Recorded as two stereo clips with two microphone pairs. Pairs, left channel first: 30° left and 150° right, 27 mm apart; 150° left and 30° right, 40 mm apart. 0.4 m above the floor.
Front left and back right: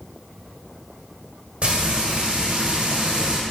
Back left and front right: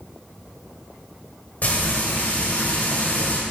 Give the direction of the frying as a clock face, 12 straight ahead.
6 o'clock.